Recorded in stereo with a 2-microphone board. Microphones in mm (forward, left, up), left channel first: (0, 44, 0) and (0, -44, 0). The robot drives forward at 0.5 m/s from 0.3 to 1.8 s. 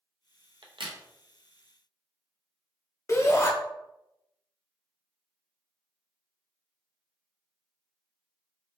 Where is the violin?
No violin in this recording.